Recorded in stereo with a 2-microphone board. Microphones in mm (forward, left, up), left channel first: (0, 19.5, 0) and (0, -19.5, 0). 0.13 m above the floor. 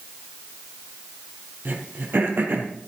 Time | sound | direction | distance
1.6 | throat clearing | 60° right (ahead or behind) | 3 m